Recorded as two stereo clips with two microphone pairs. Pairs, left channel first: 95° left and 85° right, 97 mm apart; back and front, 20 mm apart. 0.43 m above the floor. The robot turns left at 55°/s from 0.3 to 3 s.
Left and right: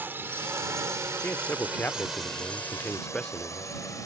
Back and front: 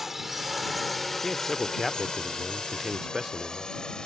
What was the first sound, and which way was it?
A drone, 60° right.